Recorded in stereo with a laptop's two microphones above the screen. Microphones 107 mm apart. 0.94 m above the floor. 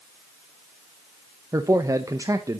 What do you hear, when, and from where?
1.5 s a man speaking: 30° right (ahead or behind), 0.7 m